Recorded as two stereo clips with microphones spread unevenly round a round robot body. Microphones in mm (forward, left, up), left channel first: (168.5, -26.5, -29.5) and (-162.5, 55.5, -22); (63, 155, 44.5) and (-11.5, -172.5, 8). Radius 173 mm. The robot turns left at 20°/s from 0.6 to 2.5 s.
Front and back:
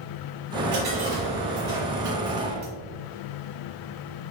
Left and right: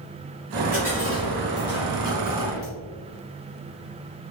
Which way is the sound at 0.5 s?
165° right.